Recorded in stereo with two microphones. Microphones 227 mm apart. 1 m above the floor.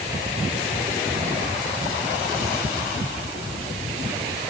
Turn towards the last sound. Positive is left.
No sound to turn to.